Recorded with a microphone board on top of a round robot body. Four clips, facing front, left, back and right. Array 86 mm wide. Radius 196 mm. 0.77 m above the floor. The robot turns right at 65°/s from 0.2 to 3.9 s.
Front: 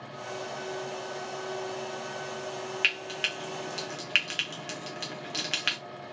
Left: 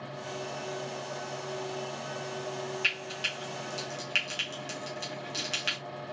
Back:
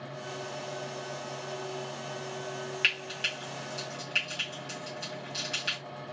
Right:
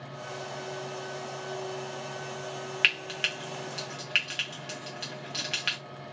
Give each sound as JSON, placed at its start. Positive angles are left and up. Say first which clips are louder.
{"t": 2.8, "sound": "frying", "louder": "right 3 dB, front 1 dB", "azimuth_deg": -85, "distance_m": 0.8}